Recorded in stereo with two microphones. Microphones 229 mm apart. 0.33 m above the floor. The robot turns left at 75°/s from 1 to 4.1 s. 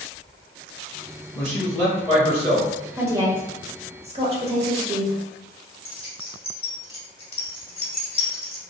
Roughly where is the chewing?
No chewing in this recording.